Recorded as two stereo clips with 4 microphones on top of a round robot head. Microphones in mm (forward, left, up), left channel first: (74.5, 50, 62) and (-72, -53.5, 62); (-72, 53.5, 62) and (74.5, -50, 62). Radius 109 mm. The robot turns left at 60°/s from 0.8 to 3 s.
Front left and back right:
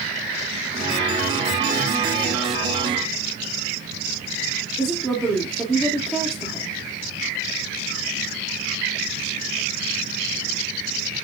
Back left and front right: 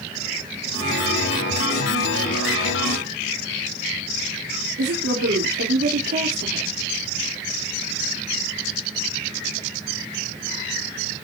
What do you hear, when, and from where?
4.8 s a woman speaking: 50° right, 2.5 m